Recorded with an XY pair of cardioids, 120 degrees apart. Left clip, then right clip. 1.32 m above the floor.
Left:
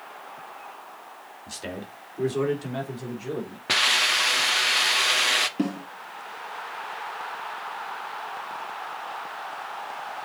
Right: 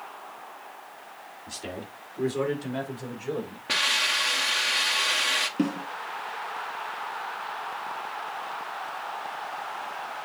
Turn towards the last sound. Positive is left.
turn(degrees=0)